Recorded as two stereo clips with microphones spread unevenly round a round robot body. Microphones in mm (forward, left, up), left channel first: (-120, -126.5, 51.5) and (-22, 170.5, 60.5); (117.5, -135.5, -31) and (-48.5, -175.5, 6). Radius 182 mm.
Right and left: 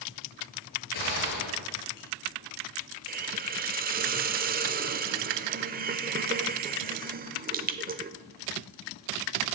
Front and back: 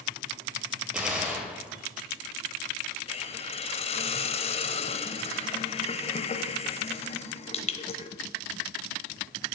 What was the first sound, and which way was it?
A gunshot, 80° right.